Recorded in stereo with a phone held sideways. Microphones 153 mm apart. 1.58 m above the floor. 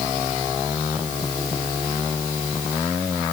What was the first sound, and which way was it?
Only background noise.